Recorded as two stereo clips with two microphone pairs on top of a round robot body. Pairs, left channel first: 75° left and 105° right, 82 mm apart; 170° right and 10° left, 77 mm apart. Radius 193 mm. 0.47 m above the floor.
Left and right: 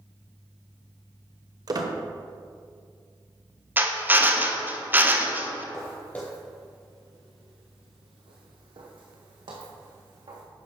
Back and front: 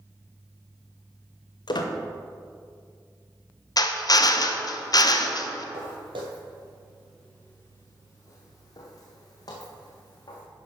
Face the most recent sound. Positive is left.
turn(degrees=-135)